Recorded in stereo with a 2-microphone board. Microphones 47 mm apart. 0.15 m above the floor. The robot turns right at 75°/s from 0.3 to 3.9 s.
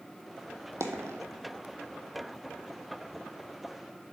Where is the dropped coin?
85° right, 0.8 m; by 1.2 s 65° right (ahead or behind), 0.8 m.